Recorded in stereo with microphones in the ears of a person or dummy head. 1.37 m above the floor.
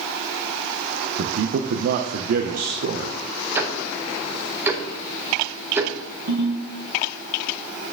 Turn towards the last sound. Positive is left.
turn(degrees=-70)  # may be behind; listen again after turning